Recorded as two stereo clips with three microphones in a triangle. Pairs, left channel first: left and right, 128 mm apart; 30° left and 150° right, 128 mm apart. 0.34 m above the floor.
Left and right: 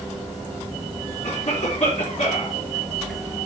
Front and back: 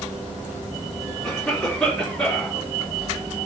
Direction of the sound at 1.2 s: 115° left.